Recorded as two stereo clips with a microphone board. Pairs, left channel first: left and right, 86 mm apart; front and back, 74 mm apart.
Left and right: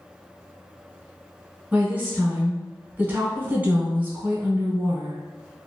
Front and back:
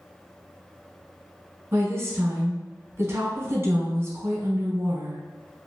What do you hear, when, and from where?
1.7 s a woman speaking: 150° right, 1.2 m